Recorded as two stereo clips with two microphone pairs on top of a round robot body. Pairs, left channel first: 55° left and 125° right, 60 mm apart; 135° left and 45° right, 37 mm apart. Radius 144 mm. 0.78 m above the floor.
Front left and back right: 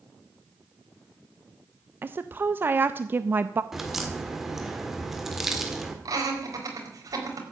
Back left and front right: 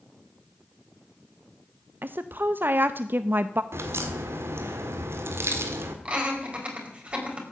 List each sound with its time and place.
2.0 s a woman speaking: 75° right, 0.7 m
3.7 s a crack: 40° right, 1.5 m
6.0 s laughter: 105° right, 4.5 m